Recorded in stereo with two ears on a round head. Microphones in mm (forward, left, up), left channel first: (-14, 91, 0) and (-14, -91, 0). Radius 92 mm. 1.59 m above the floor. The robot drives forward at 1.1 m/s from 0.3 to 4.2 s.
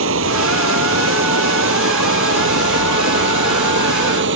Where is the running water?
70° right (ahead or behind); by 4.4 s 65° right (ahead or behind).